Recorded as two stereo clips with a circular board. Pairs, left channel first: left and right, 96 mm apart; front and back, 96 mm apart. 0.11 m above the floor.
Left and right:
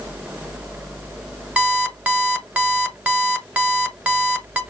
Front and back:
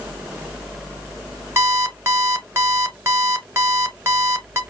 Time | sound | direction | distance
1.6 | an alarm clock | 150° right | 1.0 m